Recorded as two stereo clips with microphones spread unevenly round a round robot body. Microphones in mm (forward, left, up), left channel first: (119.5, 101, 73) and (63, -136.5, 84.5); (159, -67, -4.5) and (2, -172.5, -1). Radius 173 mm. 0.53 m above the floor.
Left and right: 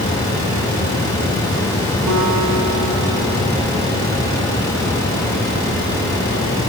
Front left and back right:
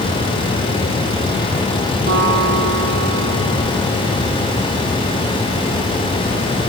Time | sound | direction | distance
2.1 | a guitar | 125° right | 7 m